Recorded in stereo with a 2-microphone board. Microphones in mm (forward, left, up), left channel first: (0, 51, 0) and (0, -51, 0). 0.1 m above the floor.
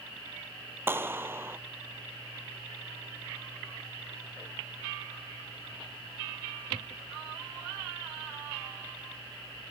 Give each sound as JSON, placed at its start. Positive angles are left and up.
{"t": 0.9, "sound": "a clap", "side_deg": -20}